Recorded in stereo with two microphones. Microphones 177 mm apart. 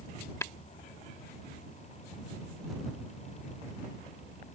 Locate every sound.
0.4 s tapping: 15° left (ahead or behind)